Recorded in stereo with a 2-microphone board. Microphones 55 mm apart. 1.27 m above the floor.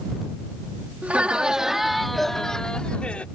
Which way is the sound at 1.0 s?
25° right (ahead or behind).